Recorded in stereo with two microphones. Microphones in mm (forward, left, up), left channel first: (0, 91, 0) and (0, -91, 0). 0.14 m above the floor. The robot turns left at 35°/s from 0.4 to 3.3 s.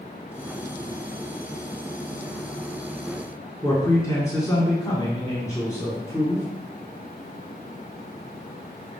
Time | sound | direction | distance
3.6 | a man speaking | 20° left (ahead or behind) | 1.3 m